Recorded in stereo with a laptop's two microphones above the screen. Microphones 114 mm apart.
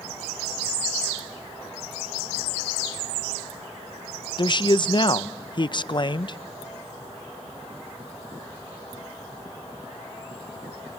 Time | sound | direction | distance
4.4 | a man speaking | 40° left (ahead or behind) | 0.6 m